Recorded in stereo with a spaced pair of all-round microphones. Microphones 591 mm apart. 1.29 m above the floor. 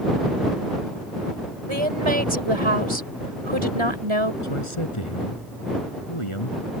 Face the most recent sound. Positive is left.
turn(degrees=55)  # may be behind; listen again after turning